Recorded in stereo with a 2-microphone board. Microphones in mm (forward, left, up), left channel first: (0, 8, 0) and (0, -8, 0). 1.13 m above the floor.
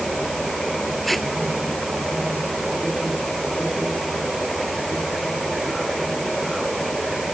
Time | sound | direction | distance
1.0 | tape being pulled | 10° left (ahead or behind) | ?